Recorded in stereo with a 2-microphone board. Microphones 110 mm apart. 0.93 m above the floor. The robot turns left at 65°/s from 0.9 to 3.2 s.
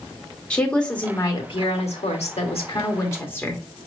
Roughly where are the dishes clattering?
I don't hear dishes clattering.